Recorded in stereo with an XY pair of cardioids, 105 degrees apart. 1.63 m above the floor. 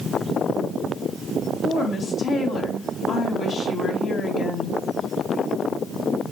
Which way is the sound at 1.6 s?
50° left.